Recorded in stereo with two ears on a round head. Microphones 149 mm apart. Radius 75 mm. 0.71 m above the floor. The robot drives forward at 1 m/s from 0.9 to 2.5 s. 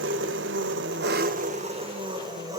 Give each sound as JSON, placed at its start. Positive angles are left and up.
{"t": 0.0, "sound": "an engine running", "side_deg": -80, "distance_m": 0.8}